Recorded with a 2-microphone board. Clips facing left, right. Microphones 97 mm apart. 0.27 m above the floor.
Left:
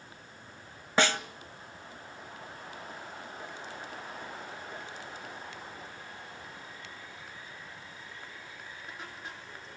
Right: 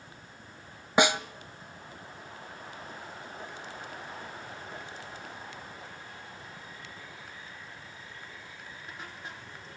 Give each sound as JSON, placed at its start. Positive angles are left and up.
{"t": 1.0, "sound": "a snare drum", "side_deg": -15, "distance_m": 0.8}